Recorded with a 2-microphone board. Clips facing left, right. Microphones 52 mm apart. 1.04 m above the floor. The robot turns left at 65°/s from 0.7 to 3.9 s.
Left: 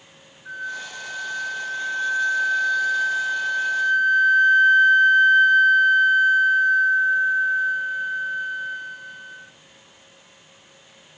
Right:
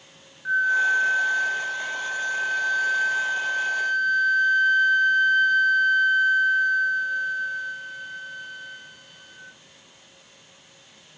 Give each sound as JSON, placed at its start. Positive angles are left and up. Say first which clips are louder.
{"t": 0.5, "sound": "a flute", "louder": "right 12 dB", "azimuth_deg": -125, "distance_m": 0.7}